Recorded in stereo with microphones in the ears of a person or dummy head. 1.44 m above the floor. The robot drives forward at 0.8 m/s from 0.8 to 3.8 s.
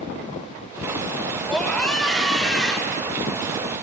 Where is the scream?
5° left (ahead or behind), 3 m.